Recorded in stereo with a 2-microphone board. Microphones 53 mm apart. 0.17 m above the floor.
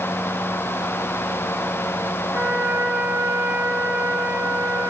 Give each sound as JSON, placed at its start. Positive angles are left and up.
{"t": 2.3, "sound": "a trumpet", "side_deg": -80, "distance_m": 7.5}